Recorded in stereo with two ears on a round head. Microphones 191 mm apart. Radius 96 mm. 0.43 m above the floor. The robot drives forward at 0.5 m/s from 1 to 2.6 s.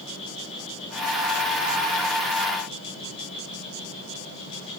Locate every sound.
0.0 s an insect: 30° left (ahead or behind), 8.5 m; by 4.8 s 25° left (ahead or behind), 9.5 m